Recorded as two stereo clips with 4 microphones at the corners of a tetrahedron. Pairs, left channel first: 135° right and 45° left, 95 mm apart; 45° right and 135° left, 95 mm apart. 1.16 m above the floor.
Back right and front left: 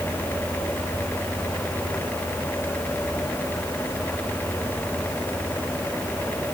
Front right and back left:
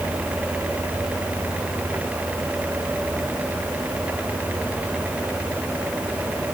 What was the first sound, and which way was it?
Only background noise.